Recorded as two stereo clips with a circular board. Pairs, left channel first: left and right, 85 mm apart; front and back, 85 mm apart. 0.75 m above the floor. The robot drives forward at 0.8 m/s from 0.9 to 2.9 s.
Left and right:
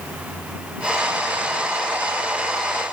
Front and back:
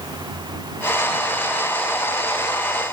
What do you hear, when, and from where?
Only background noise.